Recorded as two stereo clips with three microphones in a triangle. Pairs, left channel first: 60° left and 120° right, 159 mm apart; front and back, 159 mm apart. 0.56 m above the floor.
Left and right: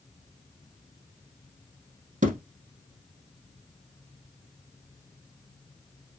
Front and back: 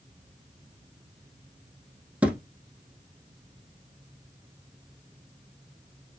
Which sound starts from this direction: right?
A thud, at 2.2 s.